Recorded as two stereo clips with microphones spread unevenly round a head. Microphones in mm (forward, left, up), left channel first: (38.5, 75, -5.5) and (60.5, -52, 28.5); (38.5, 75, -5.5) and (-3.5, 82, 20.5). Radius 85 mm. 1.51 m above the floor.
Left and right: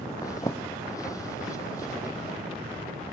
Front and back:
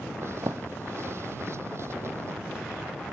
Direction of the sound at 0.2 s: 175° left.